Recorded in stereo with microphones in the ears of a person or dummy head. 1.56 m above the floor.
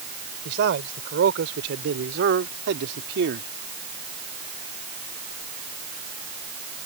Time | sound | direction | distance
0.5 | a man speaking | 60° right (ahead or behind) | ?